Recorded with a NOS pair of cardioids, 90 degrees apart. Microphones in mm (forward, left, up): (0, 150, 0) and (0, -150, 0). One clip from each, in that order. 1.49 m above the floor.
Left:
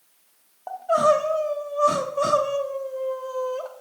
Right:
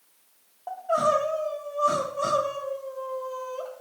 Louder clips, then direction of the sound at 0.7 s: Left 4 dB; 20° left.